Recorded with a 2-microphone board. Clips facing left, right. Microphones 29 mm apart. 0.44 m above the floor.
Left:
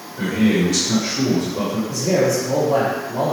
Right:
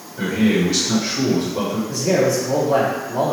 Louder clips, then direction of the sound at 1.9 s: Right 1 dB; 25° right (ahead or behind).